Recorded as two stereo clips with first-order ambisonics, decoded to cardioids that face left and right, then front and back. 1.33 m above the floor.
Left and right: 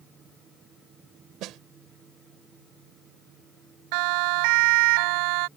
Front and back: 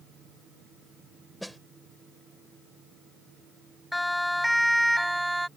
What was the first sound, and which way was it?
A snare drum, 90° right.